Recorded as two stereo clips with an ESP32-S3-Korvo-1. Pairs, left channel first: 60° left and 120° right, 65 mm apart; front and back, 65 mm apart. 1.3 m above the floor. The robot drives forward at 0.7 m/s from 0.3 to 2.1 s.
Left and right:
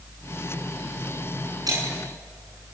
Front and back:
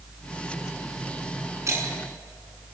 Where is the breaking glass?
135° right, 7 m; by 2.0 s 140° right, 7.5 m.